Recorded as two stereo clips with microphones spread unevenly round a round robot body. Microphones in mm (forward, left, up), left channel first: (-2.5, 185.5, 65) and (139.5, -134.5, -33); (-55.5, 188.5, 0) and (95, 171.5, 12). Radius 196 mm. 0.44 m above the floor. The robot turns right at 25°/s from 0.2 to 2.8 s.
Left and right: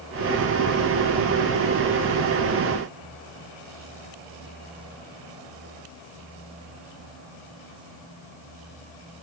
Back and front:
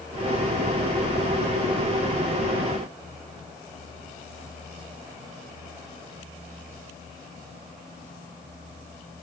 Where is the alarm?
I don't hear an alarm.